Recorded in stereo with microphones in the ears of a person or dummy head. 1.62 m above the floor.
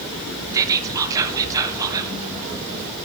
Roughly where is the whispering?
Right.